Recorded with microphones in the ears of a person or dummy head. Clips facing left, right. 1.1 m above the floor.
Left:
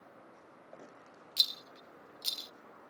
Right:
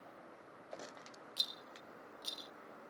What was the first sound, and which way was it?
A rattle, 30° left (ahead or behind).